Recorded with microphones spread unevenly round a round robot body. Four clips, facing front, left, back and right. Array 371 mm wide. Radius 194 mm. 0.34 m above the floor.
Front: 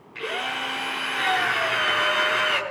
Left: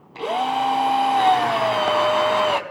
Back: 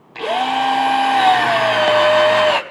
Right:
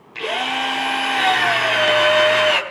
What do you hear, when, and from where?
0.1 s a drill: 170° left, 3 m